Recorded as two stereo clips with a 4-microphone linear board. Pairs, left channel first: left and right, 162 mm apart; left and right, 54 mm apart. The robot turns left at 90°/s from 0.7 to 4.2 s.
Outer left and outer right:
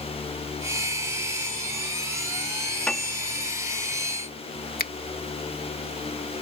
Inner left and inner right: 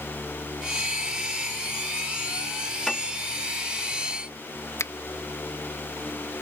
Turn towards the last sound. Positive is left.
turn(degrees=65)  # may be behind; listen again after turning